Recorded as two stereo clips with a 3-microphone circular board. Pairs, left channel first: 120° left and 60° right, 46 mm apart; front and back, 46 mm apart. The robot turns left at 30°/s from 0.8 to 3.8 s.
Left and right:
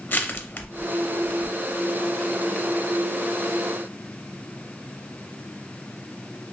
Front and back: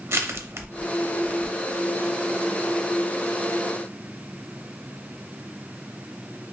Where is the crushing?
160° left, 0.6 m; by 1.8 s 130° left, 0.6 m.